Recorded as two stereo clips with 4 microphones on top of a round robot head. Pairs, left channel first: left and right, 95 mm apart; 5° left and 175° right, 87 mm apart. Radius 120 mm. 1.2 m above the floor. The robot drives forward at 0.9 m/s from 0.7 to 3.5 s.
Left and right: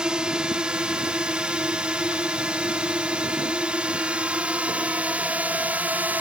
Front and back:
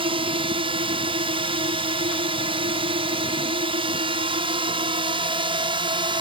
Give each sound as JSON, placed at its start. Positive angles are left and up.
{"t": 0.0, "sound": "a drone", "azimuth_deg": -170}